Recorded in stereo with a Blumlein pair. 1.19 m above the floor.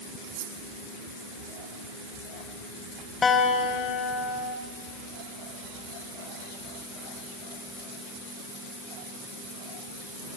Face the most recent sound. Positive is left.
turn(degrees=15)